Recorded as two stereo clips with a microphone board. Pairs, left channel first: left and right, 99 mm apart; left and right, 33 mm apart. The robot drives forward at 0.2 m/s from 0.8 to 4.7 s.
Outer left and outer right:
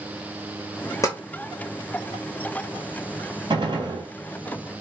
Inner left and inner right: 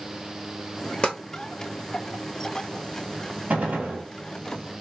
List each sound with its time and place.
1.0 s tapping: 30° left (ahead or behind), 0.9 m; by 1.2 s 35° left (ahead or behind), 0.9 m
3.5 s a gunshot: 45° right (ahead or behind), 1.2 m